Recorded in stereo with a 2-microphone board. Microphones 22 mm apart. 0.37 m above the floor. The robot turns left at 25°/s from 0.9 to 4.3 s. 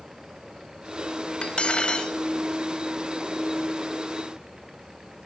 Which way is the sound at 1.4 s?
55° left (ahead or behind).